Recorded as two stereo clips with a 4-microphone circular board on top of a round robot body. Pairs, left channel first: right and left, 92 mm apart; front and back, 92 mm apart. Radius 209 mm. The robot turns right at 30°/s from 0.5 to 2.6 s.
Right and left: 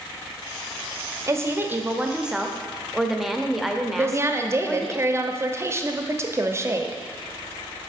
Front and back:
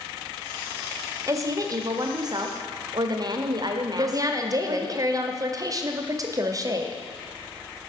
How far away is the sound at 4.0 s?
About 1.0 m.